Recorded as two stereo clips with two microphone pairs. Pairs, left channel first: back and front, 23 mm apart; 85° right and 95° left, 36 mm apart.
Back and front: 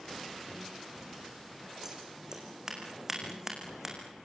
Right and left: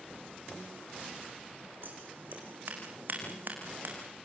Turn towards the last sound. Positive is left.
turn(degrees=70)